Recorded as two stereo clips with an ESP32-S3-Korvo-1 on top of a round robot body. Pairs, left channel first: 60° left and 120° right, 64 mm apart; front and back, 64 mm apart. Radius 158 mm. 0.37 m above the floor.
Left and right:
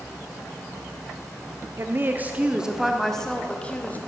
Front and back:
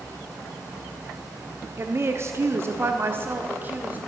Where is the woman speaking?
150° right, 1.0 m; by 4.0 s 120° left, 1.3 m.